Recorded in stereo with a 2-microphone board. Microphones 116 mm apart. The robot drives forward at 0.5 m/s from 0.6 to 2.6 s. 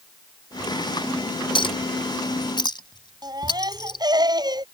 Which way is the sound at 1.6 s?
50° left (ahead or behind).